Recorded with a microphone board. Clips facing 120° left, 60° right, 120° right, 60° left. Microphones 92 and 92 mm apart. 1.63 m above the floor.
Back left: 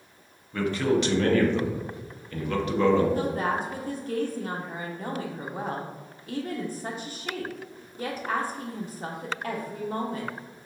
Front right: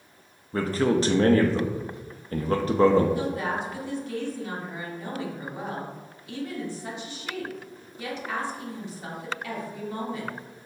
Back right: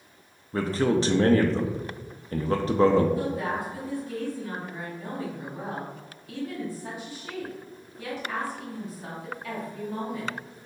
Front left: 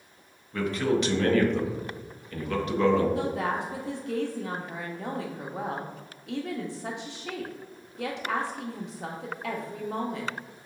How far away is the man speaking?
About 0.5 m.